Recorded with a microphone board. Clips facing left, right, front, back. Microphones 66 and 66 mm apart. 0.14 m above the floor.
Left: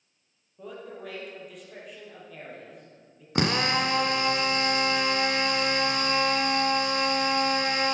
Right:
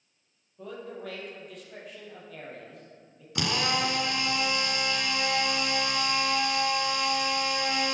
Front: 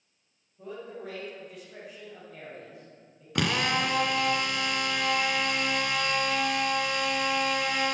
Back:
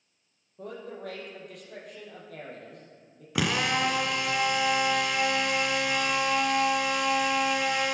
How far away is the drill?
About 0.9 m.